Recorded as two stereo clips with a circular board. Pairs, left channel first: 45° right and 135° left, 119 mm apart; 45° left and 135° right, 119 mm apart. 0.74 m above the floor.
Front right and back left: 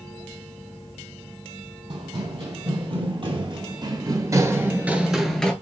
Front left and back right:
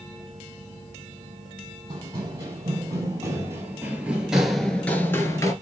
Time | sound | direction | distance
1.9 | running footsteps | 170° left | 1.7 m